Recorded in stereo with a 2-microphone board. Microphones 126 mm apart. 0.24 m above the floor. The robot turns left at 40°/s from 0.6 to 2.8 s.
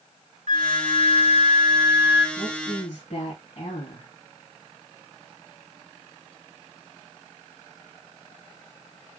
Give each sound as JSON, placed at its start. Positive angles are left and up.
{"t": 0.5, "sound": "a flute", "azimuth_deg": -105, "distance_m": 0.6}
{"t": 2.4, "sound": "a woman speaking", "side_deg": 55, "distance_m": 2.0}